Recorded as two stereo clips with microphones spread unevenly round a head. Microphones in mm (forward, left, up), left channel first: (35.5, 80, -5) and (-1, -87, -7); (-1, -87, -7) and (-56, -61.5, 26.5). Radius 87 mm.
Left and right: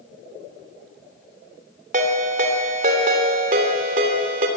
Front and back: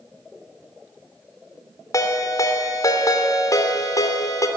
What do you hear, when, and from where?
1.9 s a ringtone: 60° right, 3 m